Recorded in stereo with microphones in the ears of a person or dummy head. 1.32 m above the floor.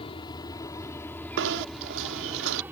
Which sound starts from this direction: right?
Knocking, at 1.4 s.